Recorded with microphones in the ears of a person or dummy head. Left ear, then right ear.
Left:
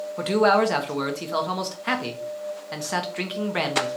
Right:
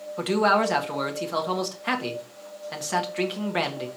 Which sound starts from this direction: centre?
A man speaking, at 0.2 s.